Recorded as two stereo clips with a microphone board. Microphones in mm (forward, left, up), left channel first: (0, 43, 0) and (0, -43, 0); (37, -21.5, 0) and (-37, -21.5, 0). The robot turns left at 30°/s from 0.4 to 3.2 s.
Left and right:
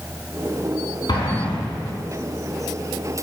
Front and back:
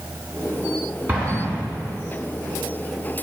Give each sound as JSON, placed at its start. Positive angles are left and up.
{"t": 1.1, "sound": "an explosion", "azimuth_deg": 120, "distance_m": 4.5}